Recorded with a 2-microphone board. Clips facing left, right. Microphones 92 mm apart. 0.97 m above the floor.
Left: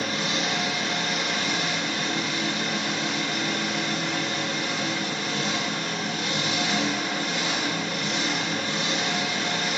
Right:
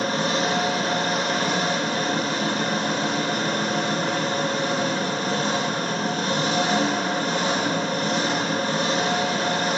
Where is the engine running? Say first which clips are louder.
Right 5 dB; 40° right (ahead or behind), 3 m.